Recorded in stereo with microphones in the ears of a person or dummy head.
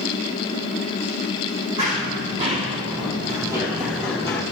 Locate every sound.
1.8 s running footsteps: 35° right (ahead or behind), 2.0 m; by 4.4 s 10° left (ahead or behind), 1.1 m